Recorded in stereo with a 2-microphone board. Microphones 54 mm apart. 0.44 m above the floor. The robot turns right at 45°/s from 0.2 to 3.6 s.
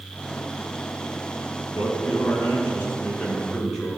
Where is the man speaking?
85° left, 5 m; by 3.9 s 170° left, 5 m.